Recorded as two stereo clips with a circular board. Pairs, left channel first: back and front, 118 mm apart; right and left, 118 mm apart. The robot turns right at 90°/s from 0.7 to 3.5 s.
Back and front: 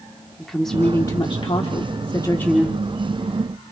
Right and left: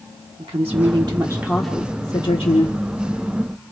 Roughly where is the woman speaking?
Left.